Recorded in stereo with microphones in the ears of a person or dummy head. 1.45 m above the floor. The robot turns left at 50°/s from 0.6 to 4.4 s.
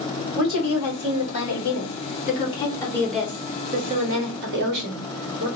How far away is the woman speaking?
About 2 m.